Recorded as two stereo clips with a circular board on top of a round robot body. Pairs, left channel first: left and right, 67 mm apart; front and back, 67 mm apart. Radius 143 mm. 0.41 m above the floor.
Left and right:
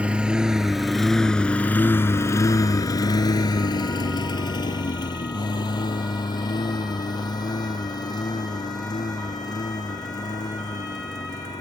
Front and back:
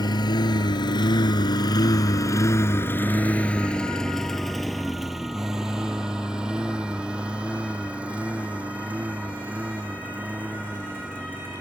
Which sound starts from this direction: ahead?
A lawn mower, at 0.0 s.